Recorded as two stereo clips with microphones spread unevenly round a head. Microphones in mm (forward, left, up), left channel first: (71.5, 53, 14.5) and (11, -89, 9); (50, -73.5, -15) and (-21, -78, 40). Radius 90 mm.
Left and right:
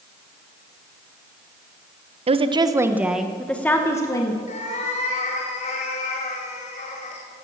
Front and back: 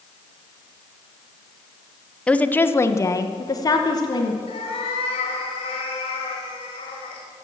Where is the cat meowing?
25° left, 2.5 m.